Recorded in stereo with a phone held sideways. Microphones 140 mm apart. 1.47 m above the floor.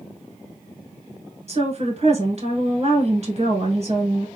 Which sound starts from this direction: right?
A woman speaking, at 1.5 s.